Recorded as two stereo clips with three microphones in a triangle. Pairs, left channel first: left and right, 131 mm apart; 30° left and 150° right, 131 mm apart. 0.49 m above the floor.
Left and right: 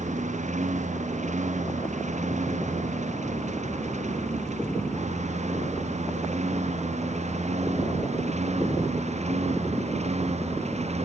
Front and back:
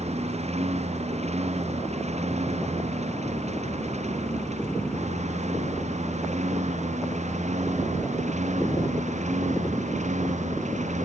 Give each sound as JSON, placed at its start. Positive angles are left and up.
{"t": 0.0, "sound": "a lawn mower", "azimuth_deg": -115}